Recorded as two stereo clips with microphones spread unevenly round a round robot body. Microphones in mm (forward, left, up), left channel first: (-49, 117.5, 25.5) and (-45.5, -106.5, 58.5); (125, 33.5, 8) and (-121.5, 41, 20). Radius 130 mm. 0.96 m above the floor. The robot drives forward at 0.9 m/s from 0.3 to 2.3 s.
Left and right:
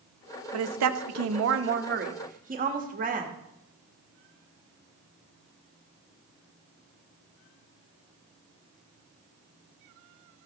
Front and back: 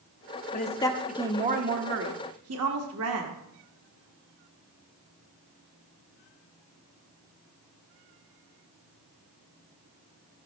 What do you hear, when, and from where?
0.5 s a woman speaking: 60° right, 0.9 m; by 3.3 s 145° right, 1.4 m